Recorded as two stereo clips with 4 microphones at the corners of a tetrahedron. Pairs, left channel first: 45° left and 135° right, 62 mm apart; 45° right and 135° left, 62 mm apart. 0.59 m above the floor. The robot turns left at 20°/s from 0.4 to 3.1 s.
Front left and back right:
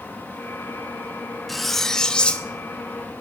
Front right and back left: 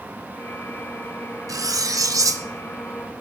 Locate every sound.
1.5 s cutlery clinking: 135° left, 0.7 m; by 2.5 s 115° left, 0.7 m